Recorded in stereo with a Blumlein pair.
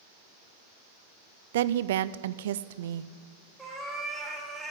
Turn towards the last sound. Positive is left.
turn(degrees=0)